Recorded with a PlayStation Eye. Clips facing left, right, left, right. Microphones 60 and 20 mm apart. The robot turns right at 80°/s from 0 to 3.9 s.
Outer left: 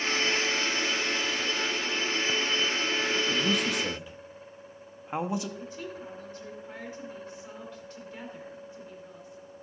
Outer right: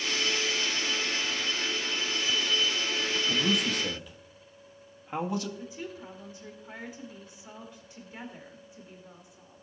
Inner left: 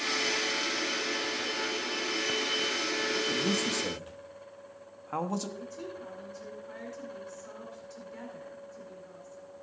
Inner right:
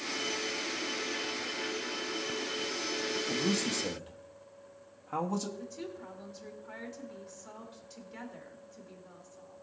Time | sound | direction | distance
3.3 | a man speaking | 20° right (ahead or behind) | 1.0 m
5.6 | a woman speaking | 15° right (ahead or behind) | 2 m